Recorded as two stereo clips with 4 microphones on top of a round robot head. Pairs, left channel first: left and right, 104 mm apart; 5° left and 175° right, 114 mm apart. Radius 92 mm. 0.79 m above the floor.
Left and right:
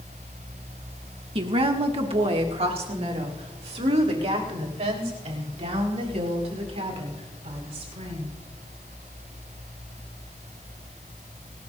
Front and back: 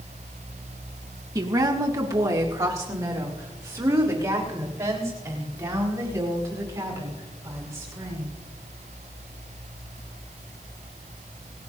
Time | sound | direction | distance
1.4 | a woman speaking | 115° right | 1.7 m